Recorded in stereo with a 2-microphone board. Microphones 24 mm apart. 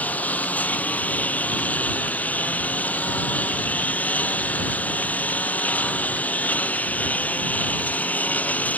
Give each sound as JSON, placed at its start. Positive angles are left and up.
{"t": 0.0, "sound": "a lawn mower", "side_deg": 90}